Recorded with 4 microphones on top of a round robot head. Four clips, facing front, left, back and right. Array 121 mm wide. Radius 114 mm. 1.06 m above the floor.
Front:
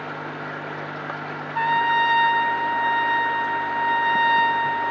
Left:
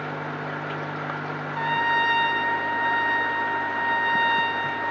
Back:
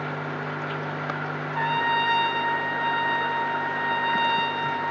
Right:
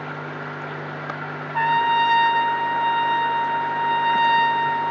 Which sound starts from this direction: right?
A trumpet, at 1.5 s.